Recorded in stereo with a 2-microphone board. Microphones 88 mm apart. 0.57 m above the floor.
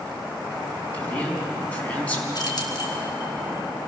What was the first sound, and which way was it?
A man speaking, 15° left (ahead or behind).